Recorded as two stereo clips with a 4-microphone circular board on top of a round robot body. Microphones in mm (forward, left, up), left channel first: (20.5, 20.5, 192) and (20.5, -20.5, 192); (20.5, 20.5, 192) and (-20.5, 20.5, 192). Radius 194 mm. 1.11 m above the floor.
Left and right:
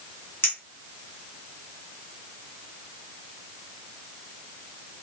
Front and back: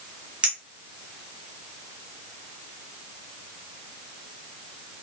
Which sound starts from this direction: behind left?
A clink, at 0.4 s.